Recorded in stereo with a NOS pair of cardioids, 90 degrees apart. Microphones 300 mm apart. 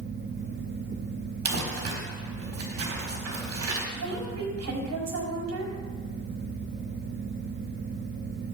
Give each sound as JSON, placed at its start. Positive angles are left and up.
{"t": 0.0, "sound": "a fan", "azimuth_deg": -35, "distance_m": 1.1}
{"t": 1.4, "sound": "crumpling", "azimuth_deg": -55, "distance_m": 4.5}
{"t": 4.0, "sound": "a woman speaking", "azimuth_deg": -60, "distance_m": 5.0}